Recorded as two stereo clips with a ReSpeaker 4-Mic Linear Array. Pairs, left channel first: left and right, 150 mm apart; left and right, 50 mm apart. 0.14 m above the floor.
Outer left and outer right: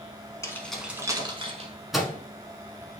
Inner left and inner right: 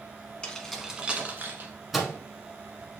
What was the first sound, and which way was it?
Keys jangling, 20° left (ahead or behind).